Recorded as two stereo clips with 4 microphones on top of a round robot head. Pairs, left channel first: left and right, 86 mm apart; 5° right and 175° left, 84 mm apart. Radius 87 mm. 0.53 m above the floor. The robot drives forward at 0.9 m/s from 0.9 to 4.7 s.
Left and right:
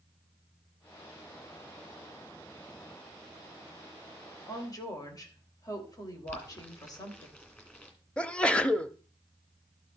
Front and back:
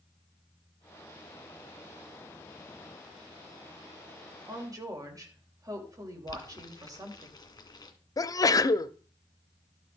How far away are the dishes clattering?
I don't hear dishes clattering.